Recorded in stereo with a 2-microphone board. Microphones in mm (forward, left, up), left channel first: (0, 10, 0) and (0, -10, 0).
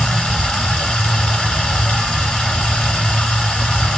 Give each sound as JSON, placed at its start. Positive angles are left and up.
{"t": 0.0, "sound": "running water", "side_deg": 60, "distance_m": 2.5}